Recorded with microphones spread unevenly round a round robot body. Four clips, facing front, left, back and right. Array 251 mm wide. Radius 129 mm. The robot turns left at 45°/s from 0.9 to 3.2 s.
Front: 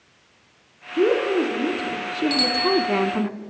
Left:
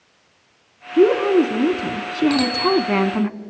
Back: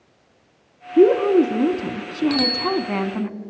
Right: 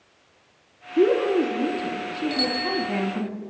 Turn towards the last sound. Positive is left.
turn(degrees=95)